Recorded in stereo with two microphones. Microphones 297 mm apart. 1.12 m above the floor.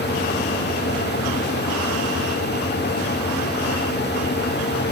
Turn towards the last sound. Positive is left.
No sound to turn to.